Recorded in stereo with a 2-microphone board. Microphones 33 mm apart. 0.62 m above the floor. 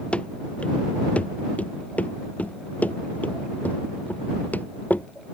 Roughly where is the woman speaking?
No woman speaking in this recording.